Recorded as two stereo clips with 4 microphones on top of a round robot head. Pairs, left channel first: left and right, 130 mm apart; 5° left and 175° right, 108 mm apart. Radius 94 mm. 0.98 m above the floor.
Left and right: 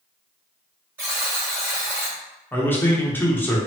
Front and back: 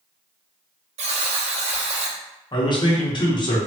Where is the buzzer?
170° right, 0.5 m.